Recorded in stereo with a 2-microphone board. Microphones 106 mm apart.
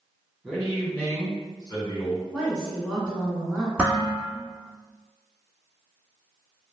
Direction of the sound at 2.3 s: Centre (ahead or behind).